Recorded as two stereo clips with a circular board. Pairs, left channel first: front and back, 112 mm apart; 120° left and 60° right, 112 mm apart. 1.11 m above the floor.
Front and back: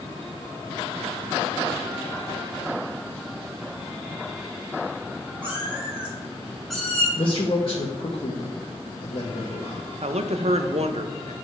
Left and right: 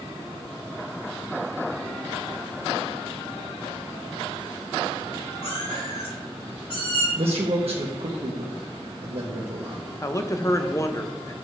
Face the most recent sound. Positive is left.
turn(degrees=180)